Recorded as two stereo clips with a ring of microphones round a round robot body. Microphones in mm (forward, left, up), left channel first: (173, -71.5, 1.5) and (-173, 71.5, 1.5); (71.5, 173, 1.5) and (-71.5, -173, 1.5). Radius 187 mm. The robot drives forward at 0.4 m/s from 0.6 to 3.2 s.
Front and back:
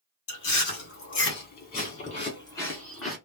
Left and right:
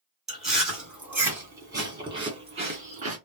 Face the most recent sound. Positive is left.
turn(degrees=-120)